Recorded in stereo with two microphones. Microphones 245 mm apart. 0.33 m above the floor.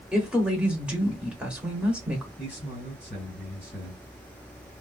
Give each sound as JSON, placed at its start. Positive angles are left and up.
{"t": 0.1, "sound": "a woman speaking", "side_deg": -5, "distance_m": 0.9}
{"t": 2.4, "sound": "a man speaking", "side_deg": 40, "distance_m": 2.0}